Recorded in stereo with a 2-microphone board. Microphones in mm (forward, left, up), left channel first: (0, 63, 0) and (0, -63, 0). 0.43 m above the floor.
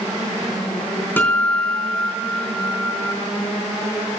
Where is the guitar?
15° left (ahead or behind), 4 m.